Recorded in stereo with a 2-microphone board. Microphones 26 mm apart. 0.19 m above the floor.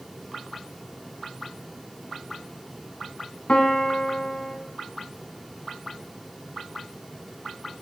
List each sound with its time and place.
3.5 s a piano: 45° left (ahead or behind), 0.5 m